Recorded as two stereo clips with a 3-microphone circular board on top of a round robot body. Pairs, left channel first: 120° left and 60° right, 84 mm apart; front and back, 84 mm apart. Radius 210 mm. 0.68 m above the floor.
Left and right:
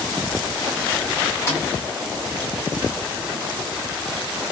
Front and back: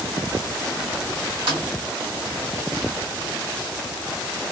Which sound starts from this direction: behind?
A snare drum, at 1.5 s.